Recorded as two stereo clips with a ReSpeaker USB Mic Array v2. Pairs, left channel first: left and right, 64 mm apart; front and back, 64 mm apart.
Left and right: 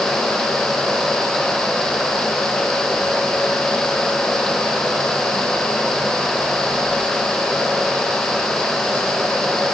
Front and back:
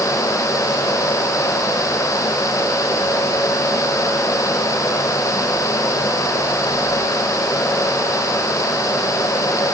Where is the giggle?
I don't hear a giggle.